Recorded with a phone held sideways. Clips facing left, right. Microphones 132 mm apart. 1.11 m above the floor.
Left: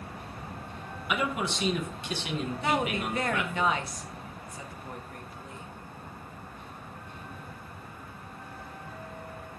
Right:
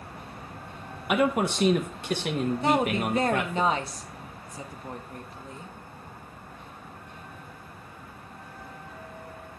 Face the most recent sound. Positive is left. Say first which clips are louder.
# right 4 dB
turn(degrees=-30)  # may be behind; listen again after turning